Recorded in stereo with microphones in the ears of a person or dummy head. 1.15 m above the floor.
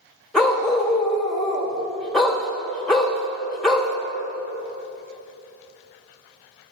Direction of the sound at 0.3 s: Centre (ahead or behind).